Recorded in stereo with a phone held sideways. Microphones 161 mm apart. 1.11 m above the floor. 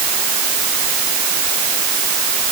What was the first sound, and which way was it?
Only background noise.